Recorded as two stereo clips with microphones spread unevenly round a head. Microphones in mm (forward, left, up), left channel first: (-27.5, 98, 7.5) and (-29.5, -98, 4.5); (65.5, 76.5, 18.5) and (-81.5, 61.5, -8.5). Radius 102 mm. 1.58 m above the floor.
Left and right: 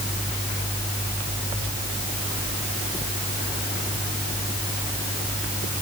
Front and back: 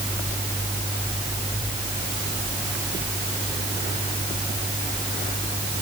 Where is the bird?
I don't hear a bird.